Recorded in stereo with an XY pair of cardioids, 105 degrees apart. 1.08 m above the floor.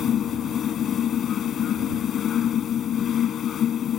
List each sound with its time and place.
0.0 s a fan: 60° left